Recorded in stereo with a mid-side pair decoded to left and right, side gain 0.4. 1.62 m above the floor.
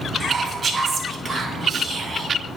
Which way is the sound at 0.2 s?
45° right.